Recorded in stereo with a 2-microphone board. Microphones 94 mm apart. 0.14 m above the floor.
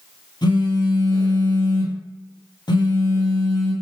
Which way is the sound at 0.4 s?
50° left (ahead or behind).